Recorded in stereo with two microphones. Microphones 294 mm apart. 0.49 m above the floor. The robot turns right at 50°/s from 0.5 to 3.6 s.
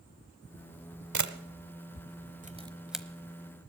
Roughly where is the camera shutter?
Right.